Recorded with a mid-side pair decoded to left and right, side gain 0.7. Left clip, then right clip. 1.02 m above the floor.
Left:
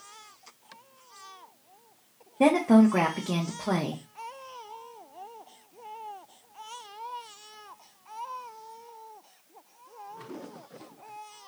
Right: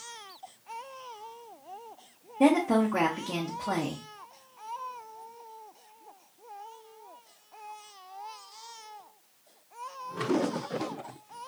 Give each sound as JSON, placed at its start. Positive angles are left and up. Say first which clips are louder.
{"t": 2.4, "sound": "a woman speaking", "louder": "left 2 dB", "azimuth_deg": 20, "distance_m": 0.7}